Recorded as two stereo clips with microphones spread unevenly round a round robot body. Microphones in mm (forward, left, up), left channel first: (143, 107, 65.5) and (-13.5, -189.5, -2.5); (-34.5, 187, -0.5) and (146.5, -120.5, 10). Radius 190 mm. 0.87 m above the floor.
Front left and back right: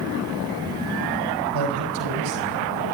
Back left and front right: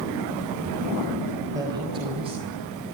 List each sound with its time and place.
1.5 s a man speaking: 140° right, 4.5 m; by 2.9 s 130° right, 6 m